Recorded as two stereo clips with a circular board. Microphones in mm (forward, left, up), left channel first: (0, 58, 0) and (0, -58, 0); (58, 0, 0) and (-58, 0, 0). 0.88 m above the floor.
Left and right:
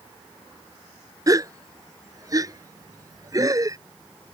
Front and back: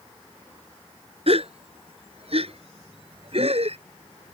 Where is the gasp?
150° right.